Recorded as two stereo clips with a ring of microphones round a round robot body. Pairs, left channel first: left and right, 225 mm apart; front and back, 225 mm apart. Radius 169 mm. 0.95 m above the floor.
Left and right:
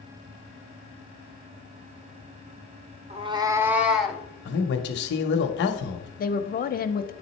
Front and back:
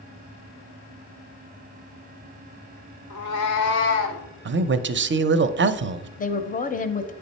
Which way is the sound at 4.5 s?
135° left.